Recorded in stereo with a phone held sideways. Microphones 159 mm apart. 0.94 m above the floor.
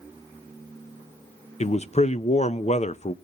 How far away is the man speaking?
About 0.5 m.